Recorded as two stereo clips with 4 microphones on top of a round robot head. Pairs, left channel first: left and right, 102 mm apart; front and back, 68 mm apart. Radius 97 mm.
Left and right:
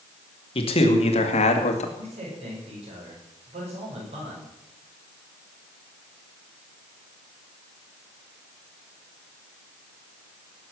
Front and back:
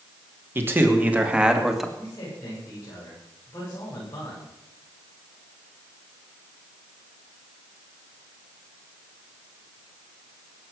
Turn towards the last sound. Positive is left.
turn(degrees=-60)